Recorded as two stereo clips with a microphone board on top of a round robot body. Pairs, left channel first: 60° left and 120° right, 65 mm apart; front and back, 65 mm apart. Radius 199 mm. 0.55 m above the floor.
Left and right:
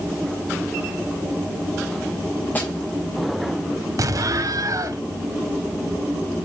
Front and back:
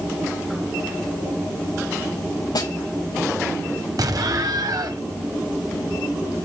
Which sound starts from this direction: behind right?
An explosion, at 4.0 s.